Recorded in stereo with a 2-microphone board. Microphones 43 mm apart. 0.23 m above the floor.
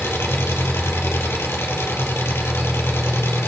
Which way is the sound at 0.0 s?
75° left (ahead or behind).